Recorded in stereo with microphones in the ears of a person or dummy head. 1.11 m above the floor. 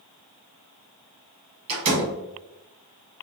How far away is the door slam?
About 1.5 m.